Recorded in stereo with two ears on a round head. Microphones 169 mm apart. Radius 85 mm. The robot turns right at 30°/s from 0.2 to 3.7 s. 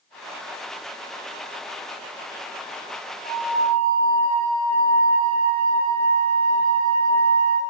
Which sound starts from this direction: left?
A flute, at 3.2 s.